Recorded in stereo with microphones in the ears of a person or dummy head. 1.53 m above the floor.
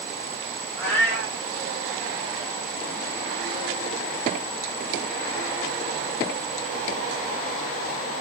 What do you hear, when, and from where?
0.8 s a cat meowing: 10° left (ahead or behind), 1.3 m